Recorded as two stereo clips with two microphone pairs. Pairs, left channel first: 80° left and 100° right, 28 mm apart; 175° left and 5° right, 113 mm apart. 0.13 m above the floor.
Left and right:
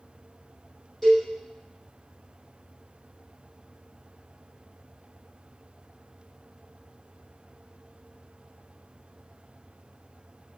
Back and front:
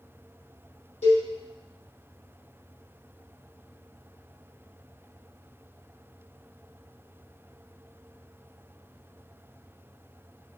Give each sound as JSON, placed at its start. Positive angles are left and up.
{"t": 1.0, "sound": "a cowbell", "azimuth_deg": 165, "distance_m": 6.0}